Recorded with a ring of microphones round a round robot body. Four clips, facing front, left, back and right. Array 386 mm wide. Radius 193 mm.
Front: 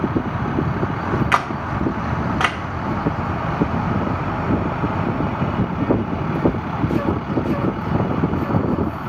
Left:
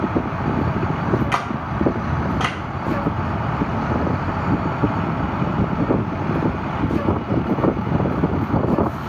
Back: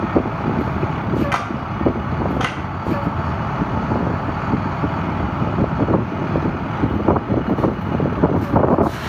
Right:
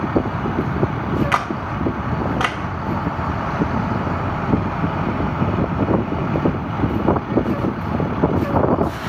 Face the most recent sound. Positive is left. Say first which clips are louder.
# right 2 dB, front 2 dB
turn(degrees=-30)